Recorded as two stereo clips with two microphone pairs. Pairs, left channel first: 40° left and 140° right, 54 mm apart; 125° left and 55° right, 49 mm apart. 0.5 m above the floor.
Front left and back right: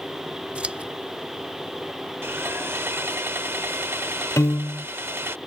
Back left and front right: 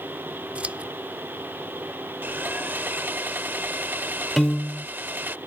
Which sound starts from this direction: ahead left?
A piano, at 4.4 s.